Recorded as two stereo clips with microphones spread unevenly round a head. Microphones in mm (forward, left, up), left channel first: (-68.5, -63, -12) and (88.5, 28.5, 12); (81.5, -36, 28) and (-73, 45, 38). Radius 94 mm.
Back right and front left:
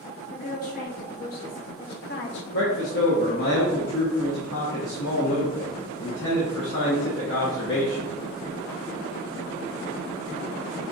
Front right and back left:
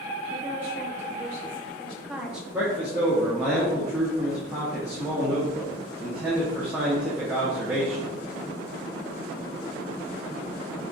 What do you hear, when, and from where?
0.3 s a woman speaking: 105° right, 2 m; by 2.4 s 125° right, 0.9 m
2.5 s a man speaking: 125° right, 0.9 m